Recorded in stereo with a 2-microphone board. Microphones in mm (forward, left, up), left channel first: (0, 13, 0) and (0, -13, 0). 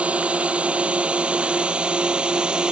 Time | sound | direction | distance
0.0 | a drone | 55° right (ahead or behind) | ?